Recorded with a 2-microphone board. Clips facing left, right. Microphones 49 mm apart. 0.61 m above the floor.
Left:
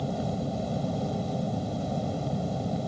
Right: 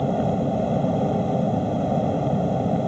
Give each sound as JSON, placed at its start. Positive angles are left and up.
{"t": 0.0, "sound": "an aircraft", "side_deg": -30}